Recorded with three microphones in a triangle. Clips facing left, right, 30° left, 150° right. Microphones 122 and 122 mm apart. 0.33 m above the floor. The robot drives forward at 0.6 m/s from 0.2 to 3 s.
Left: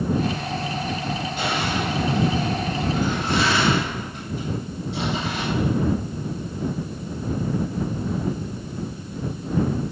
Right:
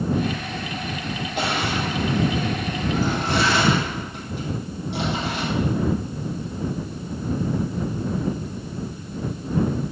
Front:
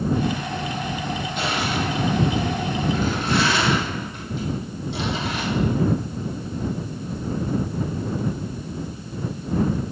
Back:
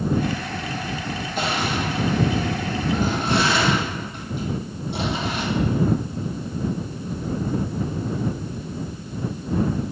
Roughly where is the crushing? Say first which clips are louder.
Right 2 dB, back 2 dB; right.